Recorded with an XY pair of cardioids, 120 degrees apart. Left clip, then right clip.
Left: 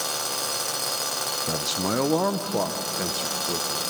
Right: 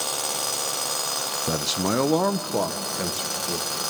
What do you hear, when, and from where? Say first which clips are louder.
1.5 s a man speaking: right 4 dB; 25° right, 0.6 m; by 3.8 s 5° right, 3 m